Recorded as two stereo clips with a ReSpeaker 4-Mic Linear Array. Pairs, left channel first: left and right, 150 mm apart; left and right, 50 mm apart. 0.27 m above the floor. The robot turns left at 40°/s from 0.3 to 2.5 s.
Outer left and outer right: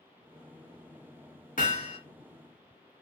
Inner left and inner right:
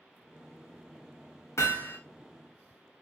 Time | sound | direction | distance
1.6 | hammering | 60° left (ahead or behind) | 1.9 m